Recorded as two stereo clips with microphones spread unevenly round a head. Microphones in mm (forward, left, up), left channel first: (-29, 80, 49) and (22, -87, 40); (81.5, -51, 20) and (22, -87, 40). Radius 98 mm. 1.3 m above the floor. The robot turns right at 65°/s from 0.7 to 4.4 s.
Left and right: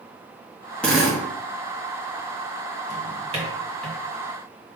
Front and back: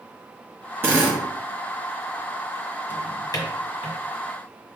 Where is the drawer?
40° right, 1.4 m; by 4.0 s 30° left, 1.4 m.